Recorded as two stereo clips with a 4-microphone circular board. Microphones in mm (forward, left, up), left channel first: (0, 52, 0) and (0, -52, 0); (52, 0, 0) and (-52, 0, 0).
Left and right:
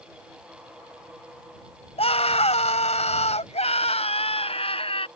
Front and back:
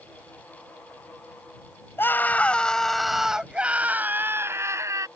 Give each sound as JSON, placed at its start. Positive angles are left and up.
{"t": 2.0, "sound": "a scream", "azimuth_deg": 70}